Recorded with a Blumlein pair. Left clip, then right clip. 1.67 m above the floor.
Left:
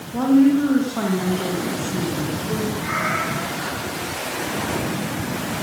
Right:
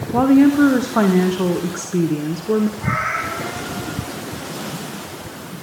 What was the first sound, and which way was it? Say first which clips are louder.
A woman speaking: right 3 dB; 45° right.